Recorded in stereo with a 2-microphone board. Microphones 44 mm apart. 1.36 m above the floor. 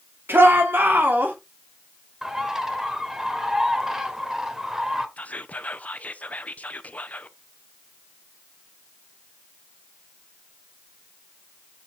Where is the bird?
10° right (ahead or behind), 1.2 m.